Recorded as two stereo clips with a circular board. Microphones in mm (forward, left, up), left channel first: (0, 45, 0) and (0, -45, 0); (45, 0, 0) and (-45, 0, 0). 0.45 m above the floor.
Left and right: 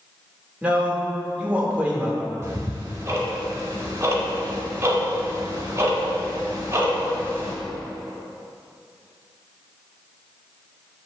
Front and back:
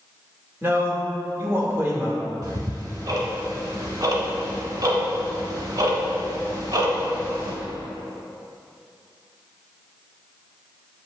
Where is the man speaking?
150° right, 0.9 m.